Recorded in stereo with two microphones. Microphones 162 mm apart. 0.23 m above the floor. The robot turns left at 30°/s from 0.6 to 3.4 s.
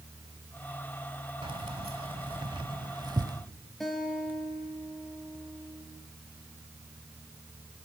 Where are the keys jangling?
35° right (ahead or behind), 0.9 m; by 3.4 s 25° right (ahead or behind), 0.9 m.